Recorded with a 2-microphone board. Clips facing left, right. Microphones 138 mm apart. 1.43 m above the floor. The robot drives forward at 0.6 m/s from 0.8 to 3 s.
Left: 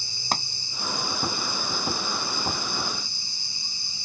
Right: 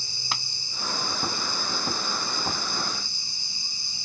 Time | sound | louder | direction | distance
0.3 | a pop | left 6 dB | 45° left (ahead or behind) | ?